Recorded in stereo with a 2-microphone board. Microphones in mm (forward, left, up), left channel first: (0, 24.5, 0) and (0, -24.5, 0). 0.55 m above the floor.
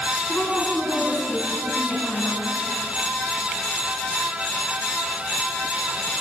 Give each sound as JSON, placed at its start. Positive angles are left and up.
{"t": 0.3, "sound": "a woman speaking", "side_deg": 25, "distance_m": 6.0}